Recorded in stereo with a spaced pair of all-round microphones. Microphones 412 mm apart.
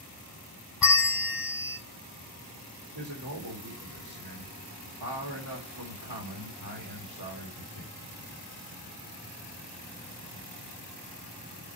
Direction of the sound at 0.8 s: 55° left (ahead or behind).